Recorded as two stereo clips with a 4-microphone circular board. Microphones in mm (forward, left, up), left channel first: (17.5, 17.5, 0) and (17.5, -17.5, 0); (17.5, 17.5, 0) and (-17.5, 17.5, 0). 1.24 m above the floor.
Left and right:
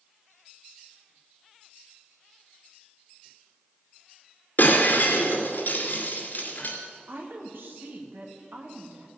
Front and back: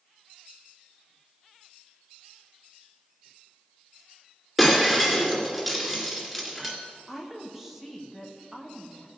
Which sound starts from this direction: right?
A woman speaking, at 7.1 s.